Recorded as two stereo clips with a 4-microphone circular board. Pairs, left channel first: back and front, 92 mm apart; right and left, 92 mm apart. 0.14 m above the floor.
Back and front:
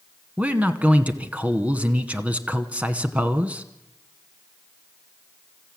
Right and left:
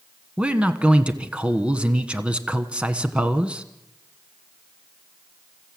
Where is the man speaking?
40° left, 1.1 m.